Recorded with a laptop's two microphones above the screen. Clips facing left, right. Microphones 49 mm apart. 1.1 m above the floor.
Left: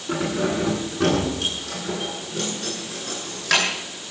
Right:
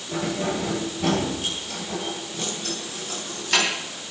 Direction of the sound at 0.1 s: 75° left (ahead or behind).